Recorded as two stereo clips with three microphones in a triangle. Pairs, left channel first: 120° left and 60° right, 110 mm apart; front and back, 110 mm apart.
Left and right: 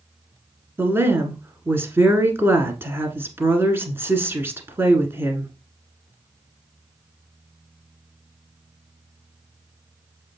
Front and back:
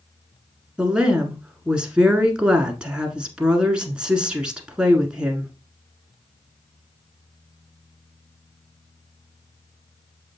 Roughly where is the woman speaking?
Right.